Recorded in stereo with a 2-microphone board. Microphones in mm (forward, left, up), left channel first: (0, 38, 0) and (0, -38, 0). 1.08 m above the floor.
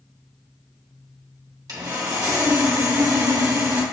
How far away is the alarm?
I don't hear an alarm.